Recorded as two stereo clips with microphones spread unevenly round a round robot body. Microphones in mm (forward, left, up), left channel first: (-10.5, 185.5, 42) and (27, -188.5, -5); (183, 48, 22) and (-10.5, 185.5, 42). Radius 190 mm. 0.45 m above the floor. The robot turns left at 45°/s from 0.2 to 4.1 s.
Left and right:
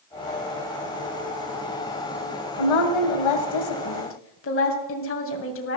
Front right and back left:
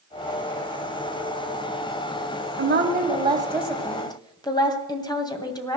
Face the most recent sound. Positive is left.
turn(degrees=35)